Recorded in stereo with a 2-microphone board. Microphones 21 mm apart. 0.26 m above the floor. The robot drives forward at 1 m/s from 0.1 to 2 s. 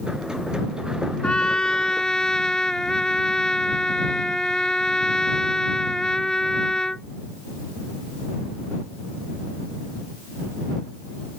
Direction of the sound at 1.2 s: 45° left (ahead or behind).